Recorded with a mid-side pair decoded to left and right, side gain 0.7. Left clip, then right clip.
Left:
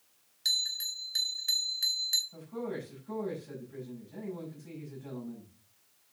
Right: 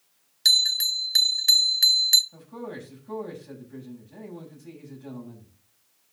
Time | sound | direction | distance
0.5 | a bell | 45° right | 0.5 m
2.3 | a man speaking | 15° right | 6.5 m